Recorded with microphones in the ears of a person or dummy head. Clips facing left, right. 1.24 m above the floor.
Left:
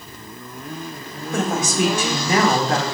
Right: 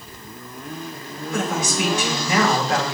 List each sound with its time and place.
1.3 s a woman speaking: 30° left (ahead or behind), 1.9 m